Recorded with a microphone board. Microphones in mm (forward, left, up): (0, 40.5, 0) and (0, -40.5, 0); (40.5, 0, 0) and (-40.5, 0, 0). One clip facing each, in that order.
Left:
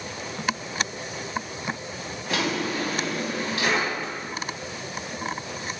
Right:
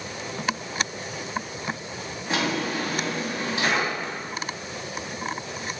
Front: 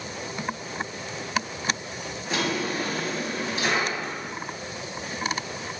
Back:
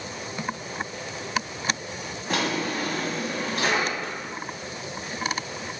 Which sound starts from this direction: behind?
A drawer, at 2.3 s.